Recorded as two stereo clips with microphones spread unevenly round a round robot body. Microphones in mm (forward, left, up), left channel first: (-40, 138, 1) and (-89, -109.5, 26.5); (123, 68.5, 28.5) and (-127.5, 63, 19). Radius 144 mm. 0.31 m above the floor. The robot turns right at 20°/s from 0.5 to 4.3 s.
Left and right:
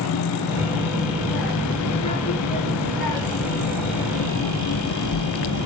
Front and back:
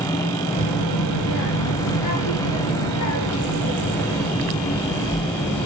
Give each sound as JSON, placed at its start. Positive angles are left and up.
{"t": 0.5, "sound": "a child speaking", "azimuth_deg": -25, "distance_m": 3.5}